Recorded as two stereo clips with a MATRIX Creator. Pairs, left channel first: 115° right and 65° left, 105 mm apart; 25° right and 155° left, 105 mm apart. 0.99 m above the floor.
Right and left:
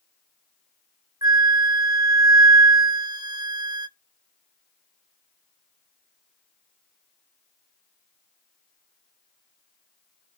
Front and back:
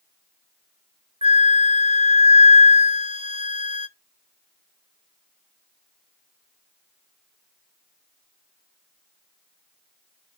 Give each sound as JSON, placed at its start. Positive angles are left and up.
{"t": 1.2, "sound": "a flute", "azimuth_deg": 120, "distance_m": 0.6}